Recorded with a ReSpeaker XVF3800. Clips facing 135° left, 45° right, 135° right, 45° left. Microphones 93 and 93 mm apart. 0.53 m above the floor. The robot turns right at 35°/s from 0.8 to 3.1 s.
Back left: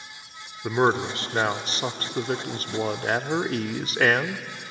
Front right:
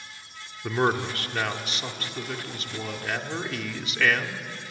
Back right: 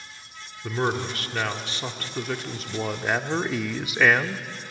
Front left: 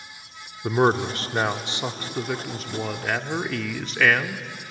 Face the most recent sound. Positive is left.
turn(degrees=150)